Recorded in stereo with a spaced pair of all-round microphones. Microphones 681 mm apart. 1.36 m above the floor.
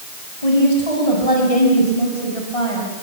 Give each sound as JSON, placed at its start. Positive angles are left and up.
{"t": 0.4, "sound": "a woman speaking", "side_deg": 60, "distance_m": 8.0}